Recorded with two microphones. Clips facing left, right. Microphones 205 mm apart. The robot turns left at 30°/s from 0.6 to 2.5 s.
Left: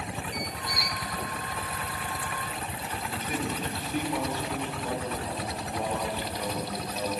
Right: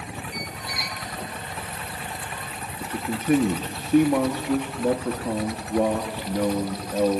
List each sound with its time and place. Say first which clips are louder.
0.3 s a squeak: even; 70° right (ahead or behind), 1.1 m; by 1.0 s 55° right (ahead or behind), 1.1 m
2.8 s a man speaking: right 12 dB; 60° right (ahead or behind), 1.3 m